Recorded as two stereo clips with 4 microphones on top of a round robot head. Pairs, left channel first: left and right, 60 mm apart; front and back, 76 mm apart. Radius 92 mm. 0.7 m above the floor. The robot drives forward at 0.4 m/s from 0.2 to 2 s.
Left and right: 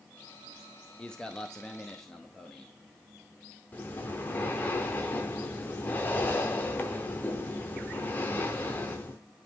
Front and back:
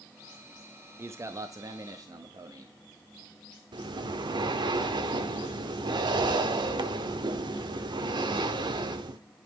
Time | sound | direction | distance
1.0 | a man speaking | 160° left | 0.8 m
3.7 | breathing | 155° left | 0.8 m